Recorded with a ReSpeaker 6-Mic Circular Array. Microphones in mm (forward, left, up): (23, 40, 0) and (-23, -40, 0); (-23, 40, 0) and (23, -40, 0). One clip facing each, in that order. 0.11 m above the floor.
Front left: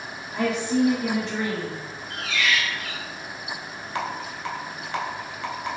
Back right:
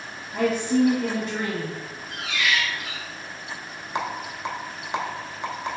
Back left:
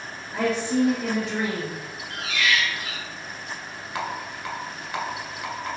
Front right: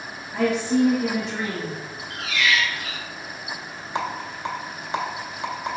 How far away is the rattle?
About 0.7 m.